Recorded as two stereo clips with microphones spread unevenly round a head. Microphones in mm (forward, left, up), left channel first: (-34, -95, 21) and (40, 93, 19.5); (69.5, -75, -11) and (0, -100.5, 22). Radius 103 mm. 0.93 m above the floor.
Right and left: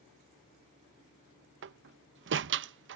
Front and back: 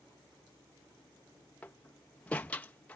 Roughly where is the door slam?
Left.